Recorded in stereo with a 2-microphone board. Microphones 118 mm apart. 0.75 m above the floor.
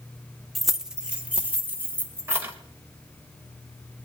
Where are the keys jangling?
Centre (ahead or behind), 1.0 m; by 2.5 s 25° right (ahead or behind), 2.5 m.